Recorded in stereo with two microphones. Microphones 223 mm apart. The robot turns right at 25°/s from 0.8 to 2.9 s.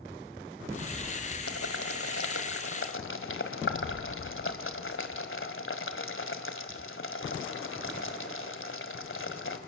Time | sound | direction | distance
1.5 | boiling | 80° left | 1.9 m